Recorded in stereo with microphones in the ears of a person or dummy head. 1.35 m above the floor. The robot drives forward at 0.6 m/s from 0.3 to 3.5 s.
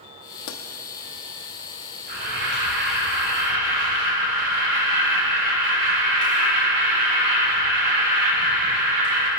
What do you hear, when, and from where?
0.5 s a pop: 60° left (ahead or behind), 1.2 m
2.1 s an alarm: 60° right (ahead or behind), 7 m; by 9.3 s 65° right (ahead or behind), 6.5 m